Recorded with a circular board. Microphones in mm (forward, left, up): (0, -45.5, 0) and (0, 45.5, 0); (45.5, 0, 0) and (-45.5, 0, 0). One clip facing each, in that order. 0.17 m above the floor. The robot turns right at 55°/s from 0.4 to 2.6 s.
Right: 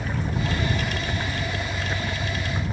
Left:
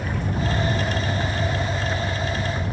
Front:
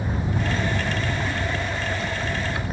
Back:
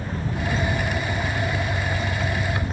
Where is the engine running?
55° left; by 2.7 s 175° left.